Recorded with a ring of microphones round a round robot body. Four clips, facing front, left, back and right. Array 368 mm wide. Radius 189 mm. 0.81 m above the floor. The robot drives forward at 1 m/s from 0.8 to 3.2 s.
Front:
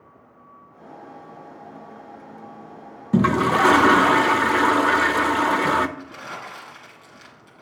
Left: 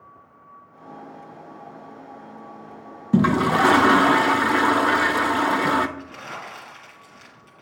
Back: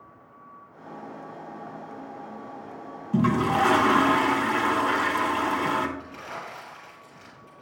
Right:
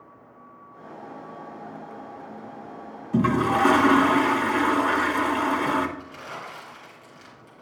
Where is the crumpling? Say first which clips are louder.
Left 2 dB, front 2 dB; 40° left, 4.5 m.